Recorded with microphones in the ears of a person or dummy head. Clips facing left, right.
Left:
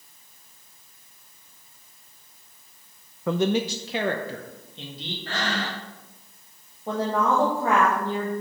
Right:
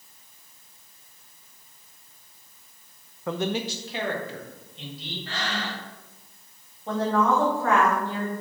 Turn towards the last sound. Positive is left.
turn(degrees=10)  # may be behind; listen again after turning